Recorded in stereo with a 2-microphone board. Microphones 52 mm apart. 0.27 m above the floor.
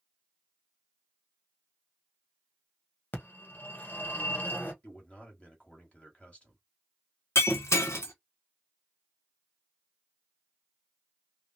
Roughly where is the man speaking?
Left.